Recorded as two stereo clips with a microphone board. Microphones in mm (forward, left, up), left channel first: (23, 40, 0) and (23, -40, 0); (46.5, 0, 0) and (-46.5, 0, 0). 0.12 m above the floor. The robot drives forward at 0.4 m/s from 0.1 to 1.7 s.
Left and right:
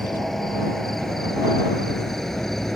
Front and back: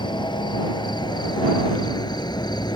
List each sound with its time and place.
0.0 s an insect: 5° left